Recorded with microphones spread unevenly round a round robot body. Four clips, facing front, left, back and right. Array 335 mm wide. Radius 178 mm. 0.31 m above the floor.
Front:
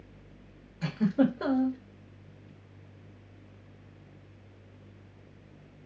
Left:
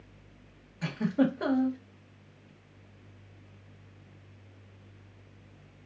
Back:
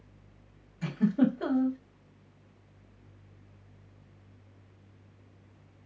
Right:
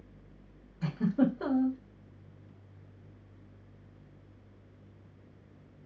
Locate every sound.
0.8 s a giggle: 15° left, 1.4 m